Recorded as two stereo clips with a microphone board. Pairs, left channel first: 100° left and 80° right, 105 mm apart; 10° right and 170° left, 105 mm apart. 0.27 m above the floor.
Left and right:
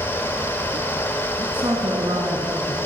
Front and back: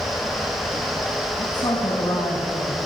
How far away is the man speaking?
About 3 m.